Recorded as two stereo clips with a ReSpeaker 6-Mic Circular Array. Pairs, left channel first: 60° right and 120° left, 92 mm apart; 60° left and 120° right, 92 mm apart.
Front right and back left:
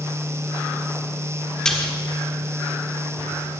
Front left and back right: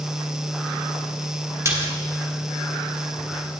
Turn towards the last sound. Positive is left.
turn(degrees=-135)